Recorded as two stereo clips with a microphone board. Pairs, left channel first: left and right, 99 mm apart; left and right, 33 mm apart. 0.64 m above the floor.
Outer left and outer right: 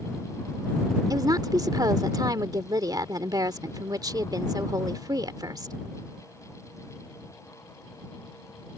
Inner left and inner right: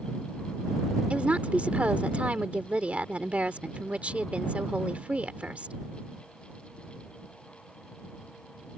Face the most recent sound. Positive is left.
turn(degrees=-45)  # may be behind; listen again after turning